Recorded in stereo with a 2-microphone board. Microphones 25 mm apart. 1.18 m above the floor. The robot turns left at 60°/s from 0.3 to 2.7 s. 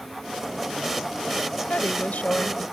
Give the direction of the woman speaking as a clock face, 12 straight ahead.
8 o'clock.